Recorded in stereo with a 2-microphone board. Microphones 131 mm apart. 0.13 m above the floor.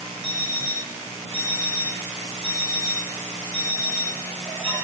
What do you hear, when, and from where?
0.2 s an alarm clock: 55° right (ahead or behind), 4 m